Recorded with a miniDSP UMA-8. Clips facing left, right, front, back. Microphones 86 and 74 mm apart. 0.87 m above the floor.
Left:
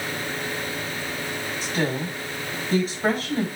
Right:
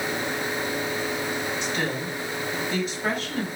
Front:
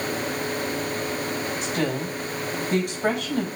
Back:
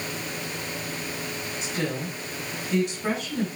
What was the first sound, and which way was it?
A woman speaking, 35° left.